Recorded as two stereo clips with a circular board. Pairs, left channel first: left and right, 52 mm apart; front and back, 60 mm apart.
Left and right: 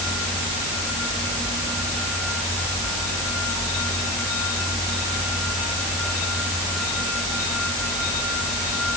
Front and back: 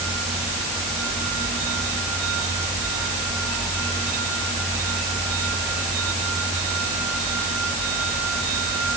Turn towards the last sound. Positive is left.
No sound to turn to.